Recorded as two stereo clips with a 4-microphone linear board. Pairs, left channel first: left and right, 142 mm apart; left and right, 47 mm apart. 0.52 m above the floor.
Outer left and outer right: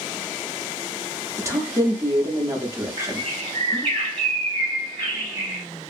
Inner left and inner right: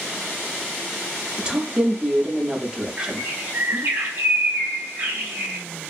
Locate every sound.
1.4 s a woman speaking: 20° right (ahead or behind), 0.7 m
3.0 s a bird: 40° right (ahead or behind), 1.5 m